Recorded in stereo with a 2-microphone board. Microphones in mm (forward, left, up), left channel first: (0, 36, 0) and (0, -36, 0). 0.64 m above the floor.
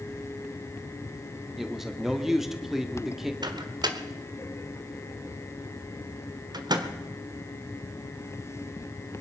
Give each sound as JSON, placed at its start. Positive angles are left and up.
{"t": 1.6, "sound": "a man speaking", "side_deg": -5, "distance_m": 1.6}
{"t": 3.4, "sound": "a microwave", "side_deg": -75, "distance_m": 1.3}